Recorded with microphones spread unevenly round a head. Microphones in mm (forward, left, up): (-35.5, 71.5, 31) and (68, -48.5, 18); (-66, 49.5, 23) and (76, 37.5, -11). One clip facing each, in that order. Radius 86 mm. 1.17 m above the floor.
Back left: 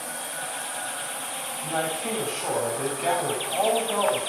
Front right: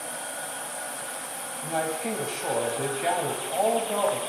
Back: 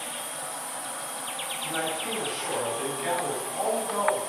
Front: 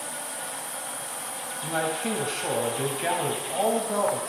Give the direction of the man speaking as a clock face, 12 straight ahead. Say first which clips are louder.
Even, front 4 dB; 11 o'clock.